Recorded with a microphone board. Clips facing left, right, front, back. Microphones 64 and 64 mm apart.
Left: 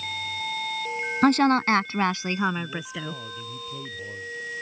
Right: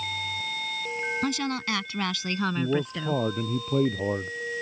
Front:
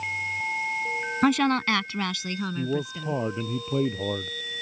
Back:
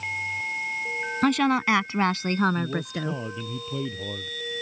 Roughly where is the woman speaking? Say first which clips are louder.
Left 14 dB, even; left.